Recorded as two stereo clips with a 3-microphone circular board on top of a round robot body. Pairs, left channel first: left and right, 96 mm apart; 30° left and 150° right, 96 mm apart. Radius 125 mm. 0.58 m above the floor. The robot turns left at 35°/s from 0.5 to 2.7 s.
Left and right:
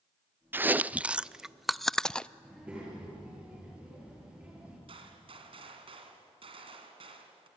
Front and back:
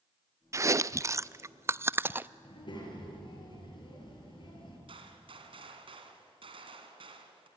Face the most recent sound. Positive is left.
turn(degrees=-120)